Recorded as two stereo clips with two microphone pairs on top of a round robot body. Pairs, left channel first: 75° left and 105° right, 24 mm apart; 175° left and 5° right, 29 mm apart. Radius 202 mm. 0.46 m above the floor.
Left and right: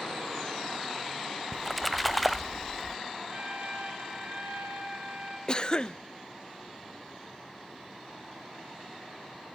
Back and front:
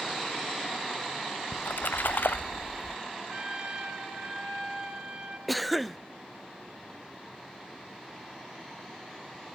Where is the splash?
170° left, 0.6 m.